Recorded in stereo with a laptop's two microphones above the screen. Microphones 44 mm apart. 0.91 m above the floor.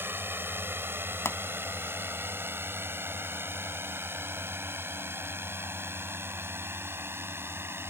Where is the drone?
60° right (ahead or behind); by 7.9 s 65° right (ahead or behind).